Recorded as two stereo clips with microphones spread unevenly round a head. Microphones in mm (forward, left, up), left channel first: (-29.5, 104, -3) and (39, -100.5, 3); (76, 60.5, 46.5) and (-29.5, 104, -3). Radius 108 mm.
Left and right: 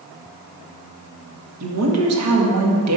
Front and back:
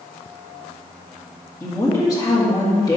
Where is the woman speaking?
90° right, 1.7 m.